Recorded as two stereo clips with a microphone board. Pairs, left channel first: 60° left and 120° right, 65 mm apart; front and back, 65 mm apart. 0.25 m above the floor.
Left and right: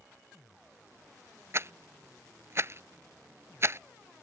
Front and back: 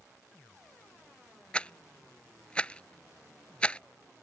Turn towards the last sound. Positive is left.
turn(degrees=-70)